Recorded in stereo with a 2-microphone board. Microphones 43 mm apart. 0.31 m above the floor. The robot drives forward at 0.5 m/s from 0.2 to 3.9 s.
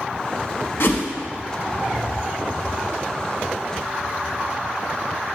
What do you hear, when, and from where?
0.8 s a whoosh: 65° left (ahead or behind), 1.0 m